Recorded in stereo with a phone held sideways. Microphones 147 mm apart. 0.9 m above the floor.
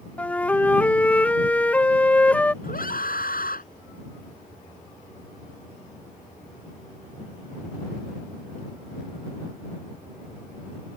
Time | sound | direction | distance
0.2 | a flute | 10° left (ahead or behind) | ?
2.6 | a scream | 70° left (ahead or behind) | ?